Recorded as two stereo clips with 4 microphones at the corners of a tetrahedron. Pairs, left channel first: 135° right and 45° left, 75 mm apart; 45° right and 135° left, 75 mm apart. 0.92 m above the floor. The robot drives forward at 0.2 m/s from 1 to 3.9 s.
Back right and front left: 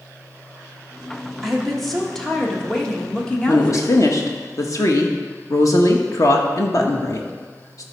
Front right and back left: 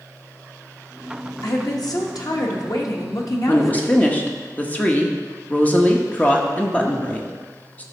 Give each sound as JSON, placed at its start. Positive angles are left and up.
{"t": 1.4, "sound": "a woman speaking", "azimuth_deg": -45, "distance_m": 1.4}
{"t": 3.5, "sound": "a woman speaking", "azimuth_deg": -105, "distance_m": 1.1}